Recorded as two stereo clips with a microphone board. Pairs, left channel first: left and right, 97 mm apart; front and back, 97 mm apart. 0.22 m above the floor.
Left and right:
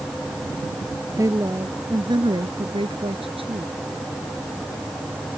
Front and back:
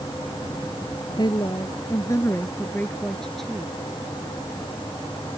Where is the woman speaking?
35° right; by 3.7 s 95° right.